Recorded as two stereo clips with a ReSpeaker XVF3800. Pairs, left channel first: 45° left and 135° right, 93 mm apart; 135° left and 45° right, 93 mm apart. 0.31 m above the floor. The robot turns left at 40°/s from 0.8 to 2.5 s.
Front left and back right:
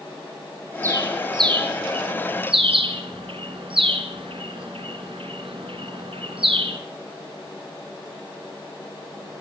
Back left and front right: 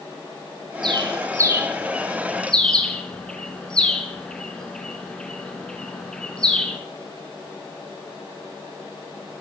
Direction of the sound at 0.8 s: 80° right.